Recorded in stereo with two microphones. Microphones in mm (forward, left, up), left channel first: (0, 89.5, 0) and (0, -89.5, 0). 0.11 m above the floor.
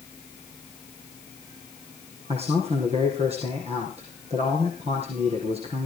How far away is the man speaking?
About 4.5 m.